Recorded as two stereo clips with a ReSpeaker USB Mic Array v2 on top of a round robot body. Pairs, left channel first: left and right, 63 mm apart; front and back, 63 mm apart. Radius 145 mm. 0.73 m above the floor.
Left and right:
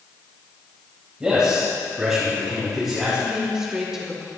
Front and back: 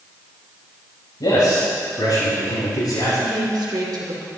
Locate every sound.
1.2 s a man speaking: 15° right, 5.5 m; by 3.2 s 5° right, 8.5 m
3.1 s a woman speaking: 170° right, 2.5 m